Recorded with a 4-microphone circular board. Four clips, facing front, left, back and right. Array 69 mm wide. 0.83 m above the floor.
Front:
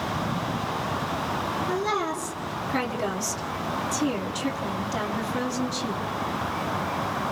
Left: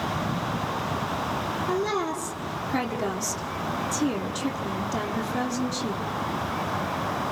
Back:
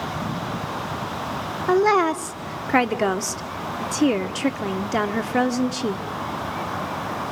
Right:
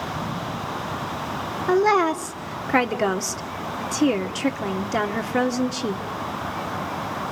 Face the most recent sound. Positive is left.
turn(degrees=-140)